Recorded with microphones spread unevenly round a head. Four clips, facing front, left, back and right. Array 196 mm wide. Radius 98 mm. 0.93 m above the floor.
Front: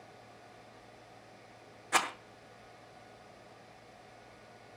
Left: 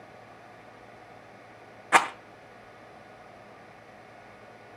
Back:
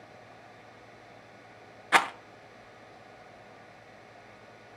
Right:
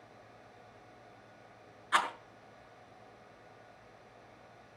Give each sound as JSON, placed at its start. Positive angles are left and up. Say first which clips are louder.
{"t": 1.9, "sound": "a rattle", "louder": "left 8 dB, back 7 dB", "azimuth_deg": 115, "distance_m": 0.9}